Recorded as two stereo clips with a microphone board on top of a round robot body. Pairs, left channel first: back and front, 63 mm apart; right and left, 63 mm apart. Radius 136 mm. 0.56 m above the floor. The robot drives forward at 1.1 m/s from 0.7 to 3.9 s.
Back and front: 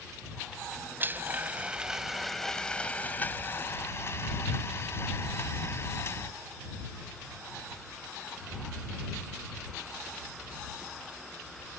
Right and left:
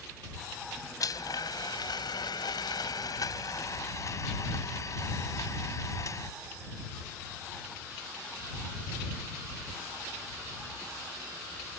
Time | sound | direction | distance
1.0 | a blender | 60° right | ?